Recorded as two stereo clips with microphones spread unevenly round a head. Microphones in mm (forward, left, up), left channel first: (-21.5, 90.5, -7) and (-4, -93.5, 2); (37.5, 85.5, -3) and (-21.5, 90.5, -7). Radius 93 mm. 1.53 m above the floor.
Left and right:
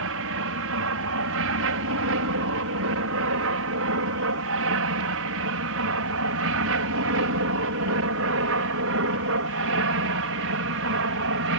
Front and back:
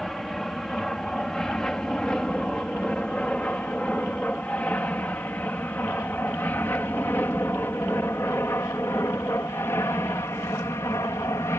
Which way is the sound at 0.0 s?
95° right.